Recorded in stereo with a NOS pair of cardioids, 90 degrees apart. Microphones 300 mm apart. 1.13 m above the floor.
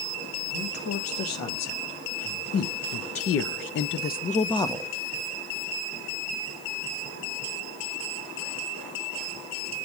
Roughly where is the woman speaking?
Ahead left.